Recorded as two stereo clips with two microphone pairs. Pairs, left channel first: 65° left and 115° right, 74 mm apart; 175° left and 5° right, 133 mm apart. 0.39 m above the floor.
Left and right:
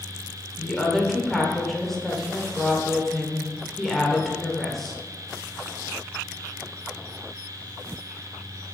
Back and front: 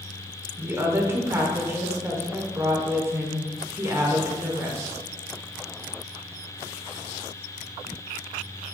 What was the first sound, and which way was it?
A woman speaking, 15° right.